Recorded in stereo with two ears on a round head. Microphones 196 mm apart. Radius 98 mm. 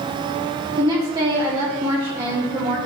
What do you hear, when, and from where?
0.8 s a woman speaking: 20° right (ahead or behind), 1.2 m